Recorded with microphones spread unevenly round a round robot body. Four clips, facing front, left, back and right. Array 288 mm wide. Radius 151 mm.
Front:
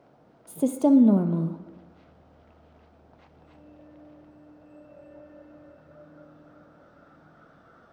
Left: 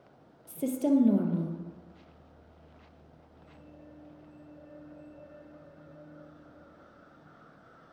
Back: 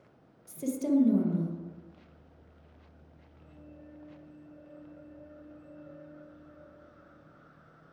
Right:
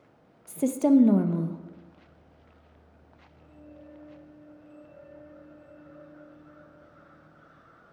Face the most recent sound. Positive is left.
turn(degrees=-20)